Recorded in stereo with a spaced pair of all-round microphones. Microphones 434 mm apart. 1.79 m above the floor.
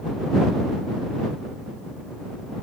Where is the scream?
No scream in this recording.